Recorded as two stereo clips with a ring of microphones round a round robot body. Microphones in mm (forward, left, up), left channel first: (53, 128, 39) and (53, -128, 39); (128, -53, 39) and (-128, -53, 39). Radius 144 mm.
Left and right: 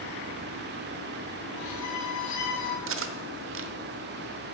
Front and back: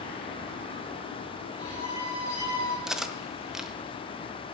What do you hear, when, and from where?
1.6 s a violin: 80° left, 4 m
2.9 s cutlery clinking: 90° right, 0.9 m